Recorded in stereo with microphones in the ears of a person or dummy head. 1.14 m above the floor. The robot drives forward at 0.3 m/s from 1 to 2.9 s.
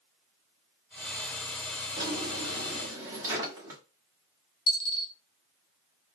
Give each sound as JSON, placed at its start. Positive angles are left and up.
{"t": 2.0, "sound": "a drawer", "side_deg": -25, "distance_m": 1.0}
{"t": 4.7, "sound": "a dropped coin", "side_deg": 65, "distance_m": 0.9}